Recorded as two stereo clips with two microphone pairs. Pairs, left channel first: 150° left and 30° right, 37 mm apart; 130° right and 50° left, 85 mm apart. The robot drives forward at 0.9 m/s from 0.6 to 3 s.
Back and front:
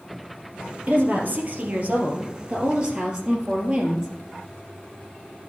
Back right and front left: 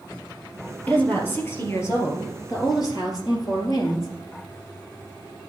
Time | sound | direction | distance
0.9 | a woman speaking | 60° right | 3 m